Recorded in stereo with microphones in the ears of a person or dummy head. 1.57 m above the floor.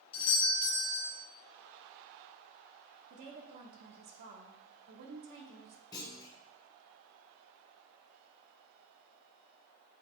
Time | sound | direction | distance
0.1 | a doorbell | 30° left (ahead or behind) | 2.5 m
3.1 | a woman speaking | 50° right (ahead or behind) | 1.0 m
5.9 | a clunk | 20° left (ahead or behind) | 1.0 m